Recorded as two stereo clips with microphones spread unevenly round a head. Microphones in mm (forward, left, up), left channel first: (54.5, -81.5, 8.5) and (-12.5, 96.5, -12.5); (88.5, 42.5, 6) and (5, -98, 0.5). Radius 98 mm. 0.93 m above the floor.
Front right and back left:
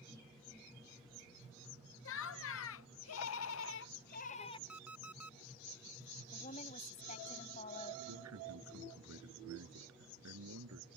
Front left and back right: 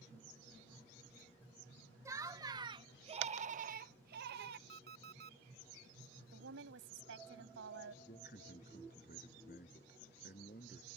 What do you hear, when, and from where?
2.0 s laughter: 50° right; by 4.6 s 140° right
4.7 s an alarm clock: 165° right
6.3 s a woman speaking: 130° right
8.1 s a man speaking: 110° left